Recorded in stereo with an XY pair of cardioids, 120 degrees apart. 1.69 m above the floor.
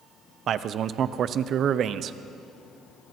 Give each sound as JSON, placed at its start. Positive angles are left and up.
{"t": 0.5, "sound": "a man speaking", "azimuth_deg": -55, "distance_m": 0.9}